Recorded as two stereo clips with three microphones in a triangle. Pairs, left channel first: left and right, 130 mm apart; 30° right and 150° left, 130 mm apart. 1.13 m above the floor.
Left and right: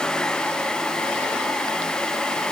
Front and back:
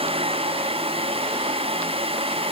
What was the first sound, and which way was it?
Only background noise.